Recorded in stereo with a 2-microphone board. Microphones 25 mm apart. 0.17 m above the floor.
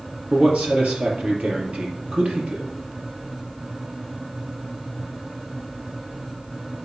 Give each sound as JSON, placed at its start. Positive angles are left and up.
{"t": 0.3, "sound": "a man speaking", "side_deg": -55, "distance_m": 4.0}